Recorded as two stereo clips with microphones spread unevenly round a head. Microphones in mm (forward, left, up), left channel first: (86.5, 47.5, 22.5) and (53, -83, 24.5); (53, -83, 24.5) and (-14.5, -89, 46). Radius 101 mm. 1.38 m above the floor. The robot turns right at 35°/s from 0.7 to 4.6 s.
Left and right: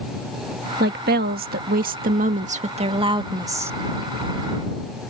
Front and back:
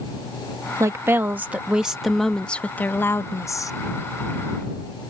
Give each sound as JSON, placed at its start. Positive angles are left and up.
{"t": 0.8, "sound": "a woman speaking", "azimuth_deg": -135}